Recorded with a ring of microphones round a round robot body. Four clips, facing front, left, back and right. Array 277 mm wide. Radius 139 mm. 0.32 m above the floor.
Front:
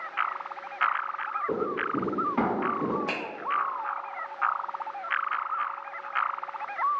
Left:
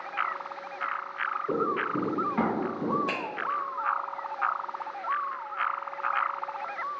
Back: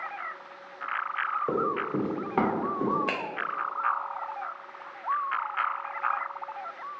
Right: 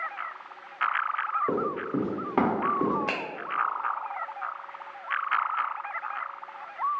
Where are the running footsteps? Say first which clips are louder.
Even, front 1 dB; 140° right, 1.4 m; by 3.0 s 110° right, 2 m.